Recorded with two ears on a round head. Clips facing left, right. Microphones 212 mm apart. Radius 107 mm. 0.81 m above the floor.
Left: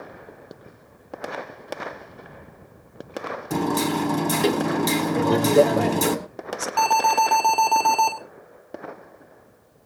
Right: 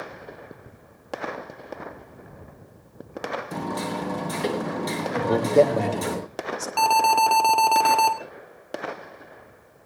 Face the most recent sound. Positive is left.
turn(degrees=-5)  # may be behind; listen again after turning